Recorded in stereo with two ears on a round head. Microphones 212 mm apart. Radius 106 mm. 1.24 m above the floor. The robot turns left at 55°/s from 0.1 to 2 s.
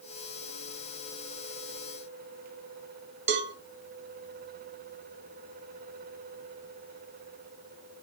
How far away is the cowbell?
About 0.6 m.